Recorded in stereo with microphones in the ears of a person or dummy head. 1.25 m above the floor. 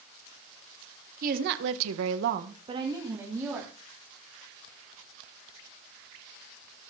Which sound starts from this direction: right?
A woman speaking, at 1.2 s.